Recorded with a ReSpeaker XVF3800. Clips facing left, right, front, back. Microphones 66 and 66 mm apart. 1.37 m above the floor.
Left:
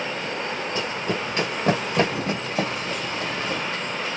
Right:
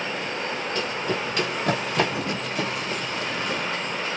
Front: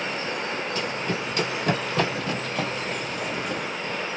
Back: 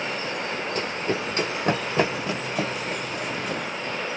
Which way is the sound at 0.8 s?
150° left.